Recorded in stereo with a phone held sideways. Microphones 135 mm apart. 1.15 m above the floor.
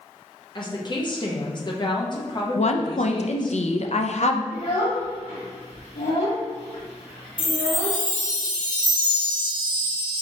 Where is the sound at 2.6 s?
60° left (ahead or behind), 0.5 m.